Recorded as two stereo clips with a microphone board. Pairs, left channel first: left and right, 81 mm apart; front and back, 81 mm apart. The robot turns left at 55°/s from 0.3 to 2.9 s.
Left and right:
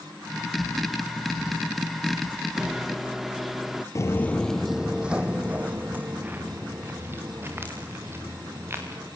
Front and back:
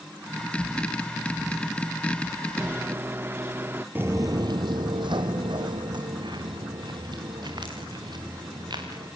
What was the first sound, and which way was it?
A microwave, 155° right.